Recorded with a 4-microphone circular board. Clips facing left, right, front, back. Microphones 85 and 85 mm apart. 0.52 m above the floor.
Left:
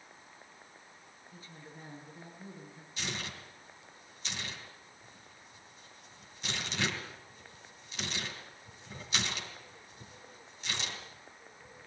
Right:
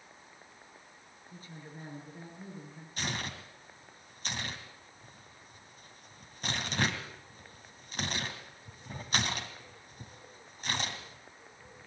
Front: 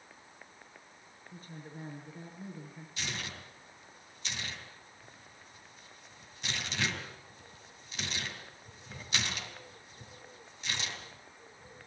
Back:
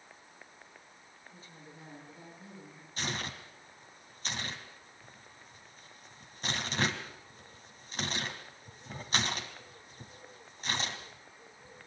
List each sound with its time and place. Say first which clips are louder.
1.3 s a woman speaking: right 3 dB, front 7 dB; 45° right, 8 m
3.0 s tearing paper: right 3 dB, back 3 dB; 130° right, 3 m